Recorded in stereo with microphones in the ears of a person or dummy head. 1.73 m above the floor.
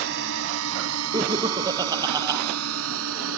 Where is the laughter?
20° right (ahead or behind).